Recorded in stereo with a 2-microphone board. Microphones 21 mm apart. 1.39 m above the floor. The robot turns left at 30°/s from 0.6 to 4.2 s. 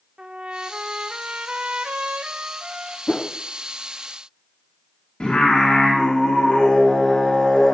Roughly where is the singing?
Left.